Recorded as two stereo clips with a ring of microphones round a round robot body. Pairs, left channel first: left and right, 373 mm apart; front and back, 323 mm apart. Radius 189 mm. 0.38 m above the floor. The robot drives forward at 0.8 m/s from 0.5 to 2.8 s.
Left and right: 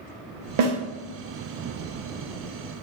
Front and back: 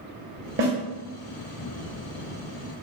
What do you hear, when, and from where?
0.6 s a snare drum: 125° right, 0.7 m; by 0.7 s 135° right, 0.8 m